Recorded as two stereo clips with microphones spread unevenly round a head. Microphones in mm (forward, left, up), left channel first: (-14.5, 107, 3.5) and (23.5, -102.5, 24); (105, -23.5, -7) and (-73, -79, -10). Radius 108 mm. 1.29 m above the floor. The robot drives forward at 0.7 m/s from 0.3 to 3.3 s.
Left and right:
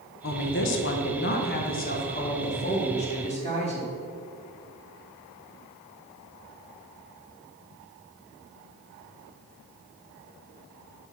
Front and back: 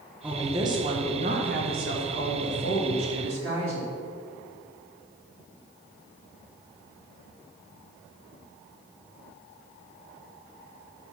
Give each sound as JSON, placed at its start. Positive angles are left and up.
{"t": 0.2, "sound": "a woman speaking", "azimuth_deg": 115, "distance_m": 1.1}